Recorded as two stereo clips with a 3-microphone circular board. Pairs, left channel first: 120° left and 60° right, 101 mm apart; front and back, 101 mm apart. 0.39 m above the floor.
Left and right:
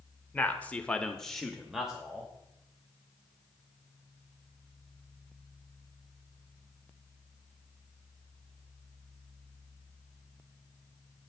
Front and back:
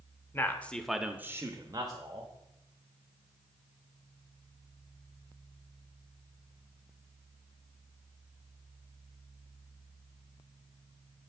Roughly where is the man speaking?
Ahead left.